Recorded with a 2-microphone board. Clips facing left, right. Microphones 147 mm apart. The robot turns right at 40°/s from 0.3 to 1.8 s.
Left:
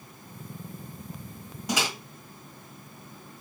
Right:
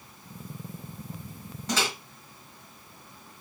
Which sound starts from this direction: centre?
A microwave, at 1.7 s.